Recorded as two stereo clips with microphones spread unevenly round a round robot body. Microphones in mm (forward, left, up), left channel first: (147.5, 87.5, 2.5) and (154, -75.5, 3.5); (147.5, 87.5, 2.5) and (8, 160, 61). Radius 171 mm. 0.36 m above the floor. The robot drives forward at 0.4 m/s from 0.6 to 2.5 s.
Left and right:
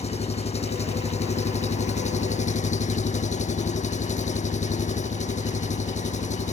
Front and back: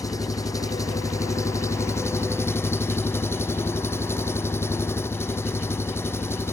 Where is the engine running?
45° left; by 6.5 s 50° left.